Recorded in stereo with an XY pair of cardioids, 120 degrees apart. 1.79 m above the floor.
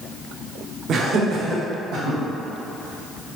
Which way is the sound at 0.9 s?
50° right.